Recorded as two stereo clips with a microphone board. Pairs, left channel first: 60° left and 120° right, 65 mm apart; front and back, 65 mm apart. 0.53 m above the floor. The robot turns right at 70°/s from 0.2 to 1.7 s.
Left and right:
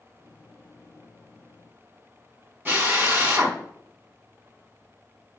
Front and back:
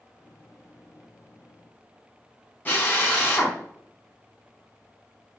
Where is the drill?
65° right, 4 m.